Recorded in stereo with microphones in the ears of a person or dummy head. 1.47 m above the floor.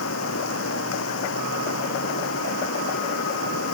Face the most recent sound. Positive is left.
turn(degrees=75)  # may be behind; listen again after turning